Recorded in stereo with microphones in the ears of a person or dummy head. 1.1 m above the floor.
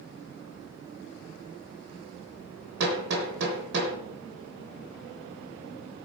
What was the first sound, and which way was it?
Hammering, 65° right (ahead or behind).